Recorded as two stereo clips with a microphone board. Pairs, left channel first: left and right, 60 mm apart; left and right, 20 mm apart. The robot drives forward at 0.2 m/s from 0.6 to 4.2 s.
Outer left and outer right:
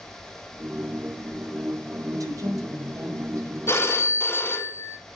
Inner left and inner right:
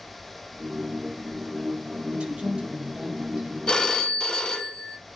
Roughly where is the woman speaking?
Right.